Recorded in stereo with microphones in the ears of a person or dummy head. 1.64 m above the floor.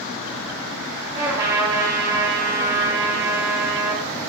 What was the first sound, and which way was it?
A trumpet, 15° right (ahead or behind).